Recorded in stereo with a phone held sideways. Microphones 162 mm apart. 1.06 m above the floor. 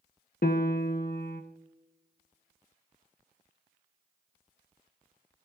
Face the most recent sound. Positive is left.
turn(degrees=70)  # may be behind; listen again after turning